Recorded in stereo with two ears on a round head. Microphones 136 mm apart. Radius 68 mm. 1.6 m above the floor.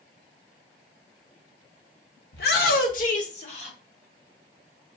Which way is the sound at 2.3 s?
80° left.